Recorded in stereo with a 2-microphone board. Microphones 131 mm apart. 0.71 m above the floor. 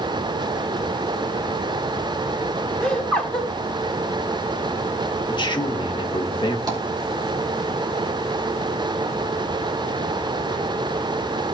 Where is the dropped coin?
No dropped coin in this recording.